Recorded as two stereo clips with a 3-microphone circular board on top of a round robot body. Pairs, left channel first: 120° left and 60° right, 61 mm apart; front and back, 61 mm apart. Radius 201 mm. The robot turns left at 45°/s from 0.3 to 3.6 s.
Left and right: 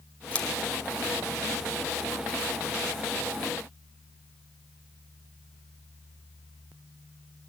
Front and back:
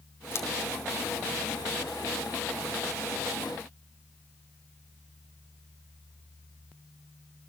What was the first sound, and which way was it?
Scissors, 50° left.